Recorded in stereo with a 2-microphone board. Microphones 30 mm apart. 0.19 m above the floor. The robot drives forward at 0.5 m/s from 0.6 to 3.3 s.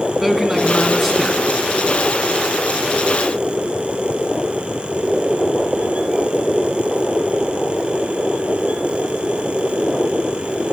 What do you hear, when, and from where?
0.2 s a man speaking: 5° right (ahead or behind), 1.7 m